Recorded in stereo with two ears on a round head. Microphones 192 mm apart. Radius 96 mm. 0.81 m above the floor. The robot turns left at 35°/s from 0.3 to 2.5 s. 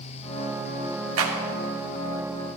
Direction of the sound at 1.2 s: 70° right (ahead or behind).